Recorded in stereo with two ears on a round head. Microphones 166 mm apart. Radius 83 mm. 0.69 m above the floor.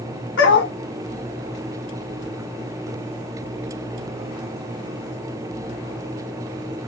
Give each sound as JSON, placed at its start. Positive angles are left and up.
{"t": 0.4, "sound": "a dog barking", "side_deg": 70, "distance_m": 1.2}